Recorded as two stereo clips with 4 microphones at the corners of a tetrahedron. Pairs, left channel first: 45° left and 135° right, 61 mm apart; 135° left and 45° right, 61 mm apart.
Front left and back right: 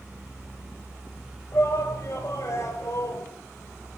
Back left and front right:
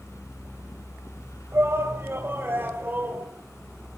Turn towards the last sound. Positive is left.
turn(degrees=15)